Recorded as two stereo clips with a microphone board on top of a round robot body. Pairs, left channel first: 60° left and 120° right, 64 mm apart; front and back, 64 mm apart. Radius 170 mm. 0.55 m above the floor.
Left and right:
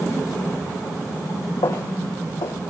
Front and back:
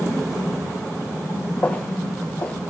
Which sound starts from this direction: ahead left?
Footsteps, at 1.6 s.